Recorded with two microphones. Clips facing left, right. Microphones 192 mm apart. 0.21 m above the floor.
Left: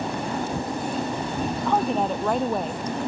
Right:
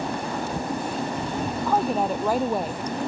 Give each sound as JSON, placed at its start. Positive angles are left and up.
{"t": 1.6, "sound": "a woman speaking", "side_deg": -5}